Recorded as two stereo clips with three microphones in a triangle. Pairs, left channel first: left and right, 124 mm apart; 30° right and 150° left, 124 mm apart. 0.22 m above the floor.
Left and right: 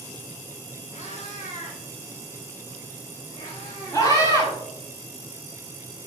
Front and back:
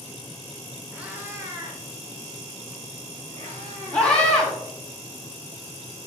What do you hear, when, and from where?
0.9 s a cat meowing: 70° left, 1.4 m; by 4.1 s 130° left, 3 m
3.9 s a scream: 45° left, 1.8 m